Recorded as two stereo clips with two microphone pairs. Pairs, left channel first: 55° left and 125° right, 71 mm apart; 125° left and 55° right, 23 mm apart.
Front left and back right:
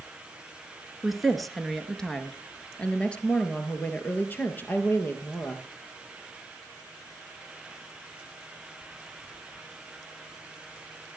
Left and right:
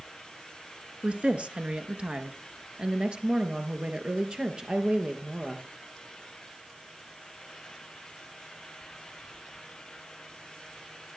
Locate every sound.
1.0 s a woman speaking: 40° right, 3 m; by 5.7 s 5° right, 5 m